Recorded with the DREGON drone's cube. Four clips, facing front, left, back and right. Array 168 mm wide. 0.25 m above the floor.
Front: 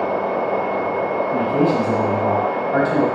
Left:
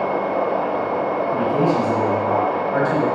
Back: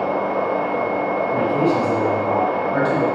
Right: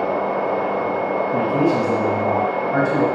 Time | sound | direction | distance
1.3 | a man speaking | 15° right | 1.2 m